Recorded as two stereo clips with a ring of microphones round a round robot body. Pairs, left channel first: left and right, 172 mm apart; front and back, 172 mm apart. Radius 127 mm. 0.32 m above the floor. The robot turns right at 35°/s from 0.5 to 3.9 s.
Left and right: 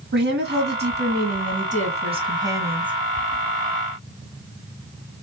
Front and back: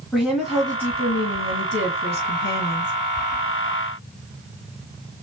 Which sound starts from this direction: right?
A woman speaking, at 0.1 s.